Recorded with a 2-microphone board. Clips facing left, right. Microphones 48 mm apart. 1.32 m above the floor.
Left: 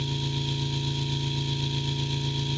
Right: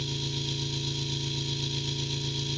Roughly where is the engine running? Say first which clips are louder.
Left 3 dB; centre.